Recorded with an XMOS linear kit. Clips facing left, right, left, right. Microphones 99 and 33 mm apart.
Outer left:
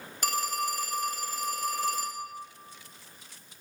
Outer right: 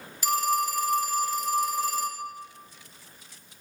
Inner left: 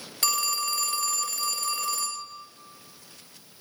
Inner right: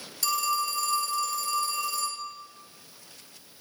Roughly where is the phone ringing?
Left.